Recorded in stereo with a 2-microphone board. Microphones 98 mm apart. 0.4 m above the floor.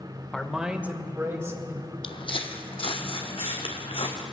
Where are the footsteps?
65° left (ahead or behind), 0.9 m; by 4.2 s 75° left (ahead or behind), 2 m.